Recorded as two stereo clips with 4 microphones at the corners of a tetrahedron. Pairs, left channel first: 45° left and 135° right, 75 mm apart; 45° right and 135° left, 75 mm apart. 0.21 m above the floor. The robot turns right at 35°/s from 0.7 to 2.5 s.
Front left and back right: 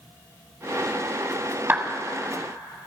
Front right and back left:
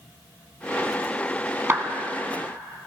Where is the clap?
175° left, 1.1 m; by 1.9 s 175° right, 1.1 m.